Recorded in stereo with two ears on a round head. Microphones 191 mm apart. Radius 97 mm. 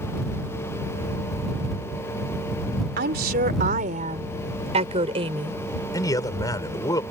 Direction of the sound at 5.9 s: 15° left (ahead or behind).